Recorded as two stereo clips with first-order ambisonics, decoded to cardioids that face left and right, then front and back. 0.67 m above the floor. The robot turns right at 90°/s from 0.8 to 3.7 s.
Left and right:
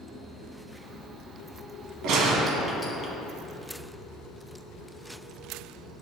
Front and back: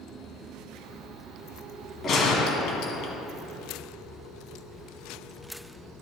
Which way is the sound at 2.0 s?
60° right.